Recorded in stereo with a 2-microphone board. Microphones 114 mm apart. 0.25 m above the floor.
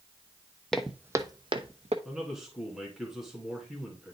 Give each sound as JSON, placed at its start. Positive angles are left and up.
{"t": 0.7, "sound": "footsteps", "side_deg": 5, "distance_m": 0.6}
{"t": 2.0, "sound": "a man speaking", "side_deg": -5, "distance_m": 2.0}